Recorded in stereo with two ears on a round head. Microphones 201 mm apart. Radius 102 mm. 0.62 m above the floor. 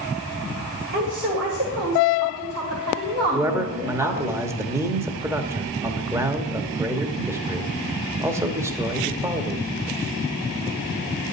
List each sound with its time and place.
0.9 s a woman speaking: 50° right (ahead or behind), 2 m
3.3 s a man speaking: 10° right (ahead or behind), 0.8 m